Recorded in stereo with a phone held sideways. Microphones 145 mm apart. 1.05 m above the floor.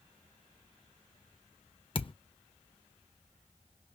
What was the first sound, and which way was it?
A thud, 40° left (ahead or behind).